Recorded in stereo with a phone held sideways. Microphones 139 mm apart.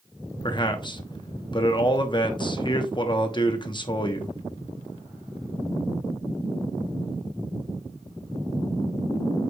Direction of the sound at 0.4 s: 35° left (ahead or behind).